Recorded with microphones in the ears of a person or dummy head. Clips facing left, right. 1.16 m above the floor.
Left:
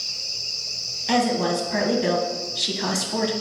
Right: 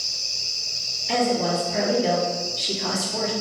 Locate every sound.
1.1 s a woman speaking: 60° left (ahead or behind), 0.8 m